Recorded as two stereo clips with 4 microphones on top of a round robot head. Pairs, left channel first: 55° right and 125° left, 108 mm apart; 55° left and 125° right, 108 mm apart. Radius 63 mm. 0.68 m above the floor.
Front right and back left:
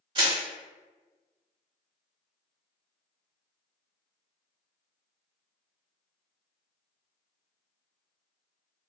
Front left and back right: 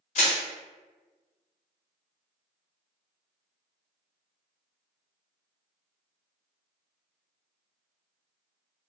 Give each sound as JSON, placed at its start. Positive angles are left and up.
{"t": 0.1, "sound": "crushing", "azimuth_deg": 80, "distance_m": 1.5}